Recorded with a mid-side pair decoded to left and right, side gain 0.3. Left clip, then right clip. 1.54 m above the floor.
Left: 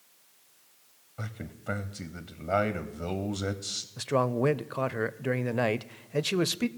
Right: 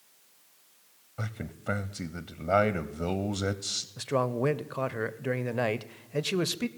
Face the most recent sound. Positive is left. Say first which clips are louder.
# left 2 dB
turn(degrees=20)